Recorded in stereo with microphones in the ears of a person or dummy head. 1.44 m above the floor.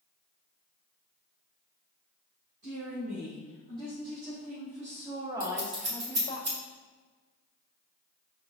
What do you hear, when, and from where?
2.6 s a woman speaking: 55° right (ahead or behind), 1.9 m; by 6.4 s 25° left (ahead or behind), 0.6 m
5.4 s scissors: 40° right (ahead or behind), 1.2 m